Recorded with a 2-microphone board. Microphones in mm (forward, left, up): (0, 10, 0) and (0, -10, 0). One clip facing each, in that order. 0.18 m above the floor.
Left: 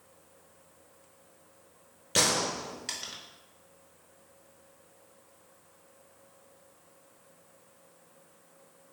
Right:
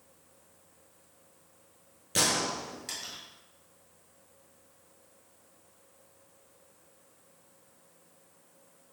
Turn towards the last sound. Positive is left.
turn(degrees=20)  # may be behind; listen again after turning